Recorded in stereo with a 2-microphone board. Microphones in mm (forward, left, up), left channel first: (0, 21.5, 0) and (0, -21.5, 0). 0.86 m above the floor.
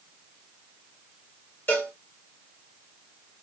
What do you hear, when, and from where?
1.7 s a cowbell: 50° left (ahead or behind), 1.9 m